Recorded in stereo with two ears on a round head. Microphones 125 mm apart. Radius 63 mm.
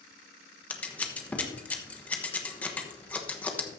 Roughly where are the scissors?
Centre.